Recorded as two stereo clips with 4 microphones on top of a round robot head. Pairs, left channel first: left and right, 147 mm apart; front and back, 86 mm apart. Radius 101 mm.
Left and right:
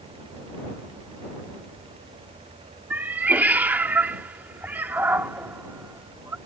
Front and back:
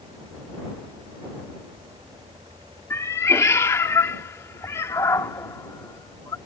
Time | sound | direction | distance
2.9 | a cat meowing | 20° right | ?